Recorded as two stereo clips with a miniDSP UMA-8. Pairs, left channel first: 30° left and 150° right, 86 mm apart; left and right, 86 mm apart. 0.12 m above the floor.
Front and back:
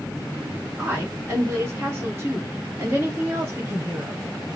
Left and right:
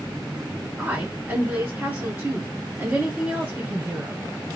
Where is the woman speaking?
130° right, 1.9 m.